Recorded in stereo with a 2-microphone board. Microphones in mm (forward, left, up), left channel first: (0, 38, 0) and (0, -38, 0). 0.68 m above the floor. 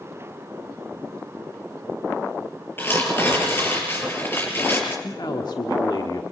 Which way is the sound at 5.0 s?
65° left (ahead or behind).